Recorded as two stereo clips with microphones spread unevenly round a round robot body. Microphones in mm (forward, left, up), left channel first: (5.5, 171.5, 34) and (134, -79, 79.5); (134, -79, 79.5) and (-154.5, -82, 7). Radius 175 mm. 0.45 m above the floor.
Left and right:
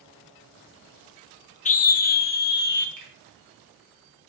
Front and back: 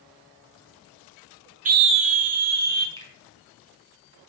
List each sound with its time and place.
1.6 s a scream: 155° left, 1.0 m; by 2.9 s 170° left, 2.5 m
3.0 s a finger snap: 105° right, 5 m